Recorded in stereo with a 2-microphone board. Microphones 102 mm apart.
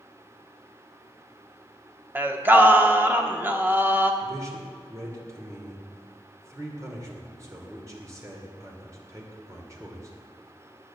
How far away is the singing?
About 1.1 m.